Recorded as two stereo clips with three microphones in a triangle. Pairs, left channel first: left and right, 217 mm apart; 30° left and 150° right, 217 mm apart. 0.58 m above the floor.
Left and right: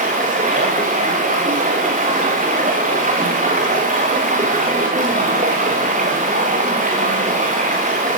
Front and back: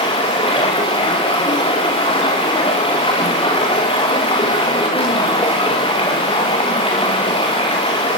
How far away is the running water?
About 7.5 m.